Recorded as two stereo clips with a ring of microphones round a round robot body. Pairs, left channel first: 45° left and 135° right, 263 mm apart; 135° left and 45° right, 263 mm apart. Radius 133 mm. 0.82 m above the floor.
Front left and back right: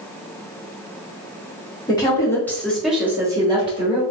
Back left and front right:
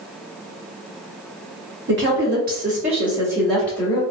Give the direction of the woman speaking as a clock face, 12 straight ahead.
1 o'clock.